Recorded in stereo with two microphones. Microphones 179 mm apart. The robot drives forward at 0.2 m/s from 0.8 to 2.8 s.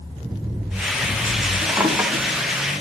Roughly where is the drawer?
Centre.